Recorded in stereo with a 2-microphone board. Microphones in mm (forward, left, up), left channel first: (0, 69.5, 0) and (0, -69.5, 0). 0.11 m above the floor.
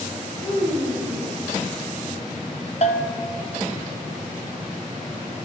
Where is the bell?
55° left (ahead or behind), 0.5 m.